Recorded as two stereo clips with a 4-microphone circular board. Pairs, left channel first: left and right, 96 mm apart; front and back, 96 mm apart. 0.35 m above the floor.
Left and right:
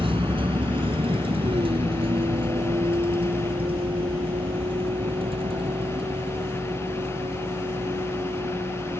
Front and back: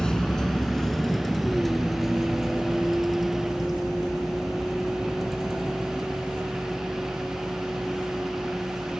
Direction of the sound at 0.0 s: 80° right.